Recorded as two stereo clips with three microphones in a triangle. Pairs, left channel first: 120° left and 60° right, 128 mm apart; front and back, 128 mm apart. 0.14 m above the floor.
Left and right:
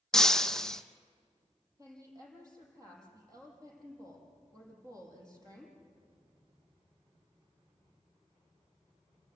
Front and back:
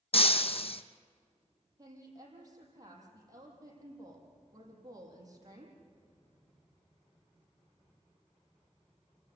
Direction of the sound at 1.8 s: 125° right.